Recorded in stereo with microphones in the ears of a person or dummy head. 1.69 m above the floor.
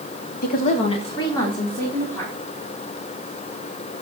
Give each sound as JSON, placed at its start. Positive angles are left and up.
{"t": 0.4, "sound": "a woman speaking", "side_deg": 55, "distance_m": 0.9}